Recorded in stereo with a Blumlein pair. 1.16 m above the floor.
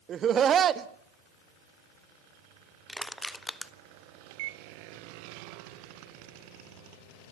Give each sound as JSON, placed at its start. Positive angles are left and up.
{"t": 0.1, "sound": "laughter", "azimuth_deg": -25, "distance_m": 1.3}
{"t": 2.9, "sound": "crushing", "azimuth_deg": 5, "distance_m": 0.8}
{"t": 4.3, "sound": "a microwave", "azimuth_deg": -50, "distance_m": 1.1}